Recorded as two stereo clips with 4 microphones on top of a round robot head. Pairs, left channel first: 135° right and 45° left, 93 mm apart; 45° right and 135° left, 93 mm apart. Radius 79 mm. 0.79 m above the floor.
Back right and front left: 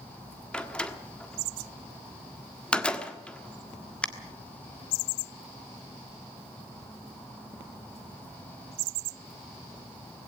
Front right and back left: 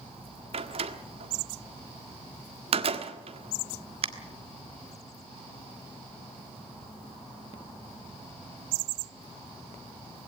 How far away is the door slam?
About 1.5 m.